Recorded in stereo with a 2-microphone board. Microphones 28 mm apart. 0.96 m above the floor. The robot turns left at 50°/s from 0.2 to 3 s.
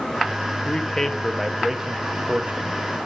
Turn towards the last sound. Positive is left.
turn(degrees=-80)